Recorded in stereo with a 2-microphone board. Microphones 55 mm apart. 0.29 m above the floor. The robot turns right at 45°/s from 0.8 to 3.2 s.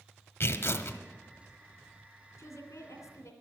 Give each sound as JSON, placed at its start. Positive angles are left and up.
{"t": 0.4, "sound": "tearing paper", "side_deg": 45, "distance_m": 1.2}
{"t": 2.4, "sound": "a woman speaking", "azimuth_deg": 60, "distance_m": 2.5}